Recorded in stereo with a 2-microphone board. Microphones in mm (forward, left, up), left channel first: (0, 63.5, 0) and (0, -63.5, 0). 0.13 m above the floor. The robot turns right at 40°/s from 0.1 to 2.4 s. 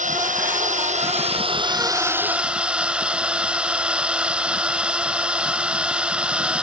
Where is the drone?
100° right; by 6.6 s 5° right.